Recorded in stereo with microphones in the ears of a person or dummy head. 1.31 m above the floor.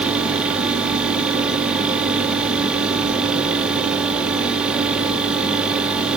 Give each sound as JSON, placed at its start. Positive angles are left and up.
{"t": 0.0, "sound": "a fan", "side_deg": -10, "distance_m": 2.0}